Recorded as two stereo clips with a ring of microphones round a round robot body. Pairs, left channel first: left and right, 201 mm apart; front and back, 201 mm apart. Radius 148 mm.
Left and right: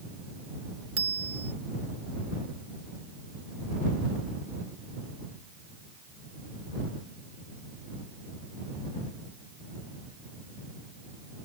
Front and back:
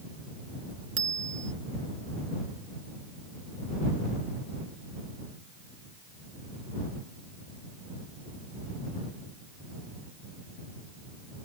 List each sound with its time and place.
1.0 s a bicycle bell: 140° right